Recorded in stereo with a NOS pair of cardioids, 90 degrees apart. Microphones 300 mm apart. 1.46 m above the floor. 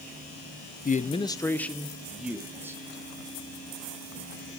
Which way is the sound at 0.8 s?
30° left.